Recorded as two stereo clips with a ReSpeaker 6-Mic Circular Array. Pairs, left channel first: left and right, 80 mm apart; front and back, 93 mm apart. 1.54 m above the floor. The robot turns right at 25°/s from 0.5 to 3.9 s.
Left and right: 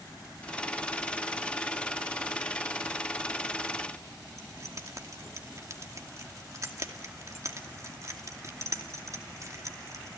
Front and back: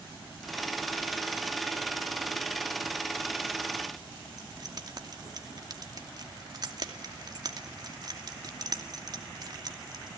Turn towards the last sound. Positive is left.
turn(degrees=-135)